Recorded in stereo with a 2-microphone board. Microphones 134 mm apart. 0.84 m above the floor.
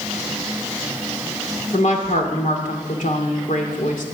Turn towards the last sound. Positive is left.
turn(degrees=70)  # may be behind; listen again after turning